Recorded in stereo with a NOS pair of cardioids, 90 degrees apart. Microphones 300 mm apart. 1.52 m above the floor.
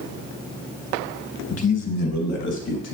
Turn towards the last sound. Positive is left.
turn(degrees=70)